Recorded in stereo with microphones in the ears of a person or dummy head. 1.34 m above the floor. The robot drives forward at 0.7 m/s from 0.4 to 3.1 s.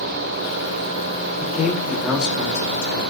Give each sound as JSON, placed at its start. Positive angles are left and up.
{"t": 1.4, "sound": "a man speaking", "side_deg": -5, "distance_m": 2.5}